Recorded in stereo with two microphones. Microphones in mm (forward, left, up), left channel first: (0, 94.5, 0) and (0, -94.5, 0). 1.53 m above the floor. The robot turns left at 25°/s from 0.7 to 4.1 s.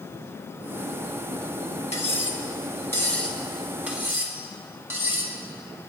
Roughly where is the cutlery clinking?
Left.